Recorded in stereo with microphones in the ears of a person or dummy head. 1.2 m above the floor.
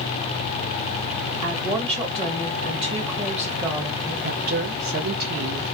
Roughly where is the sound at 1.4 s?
Right.